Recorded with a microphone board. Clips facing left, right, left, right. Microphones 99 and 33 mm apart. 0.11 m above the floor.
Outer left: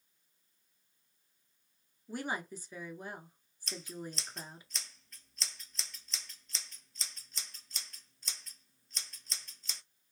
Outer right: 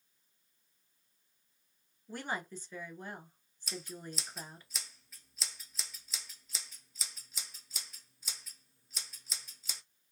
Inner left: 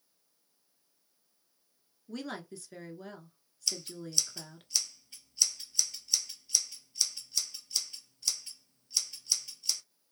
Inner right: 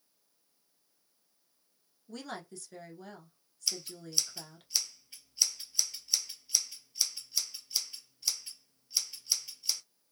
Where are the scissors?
5° right (ahead or behind), 0.7 m.